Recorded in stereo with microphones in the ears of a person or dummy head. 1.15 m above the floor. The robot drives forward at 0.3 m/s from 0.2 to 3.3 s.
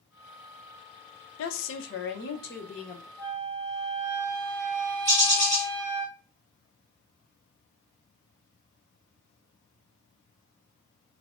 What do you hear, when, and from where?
1.4 s a woman speaking: 65° left (ahead or behind), 0.6 m; by 3.1 s 40° left (ahead or behind), 0.9 m
3.2 s a flute: 10° left (ahead or behind), 2 m
5.0 s a bird: 15° right (ahead or behind), 1.3 m